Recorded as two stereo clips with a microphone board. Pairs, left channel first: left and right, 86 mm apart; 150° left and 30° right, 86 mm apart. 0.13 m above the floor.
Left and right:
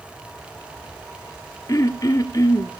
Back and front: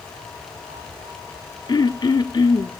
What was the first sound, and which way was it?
Throat clearing, 130° left.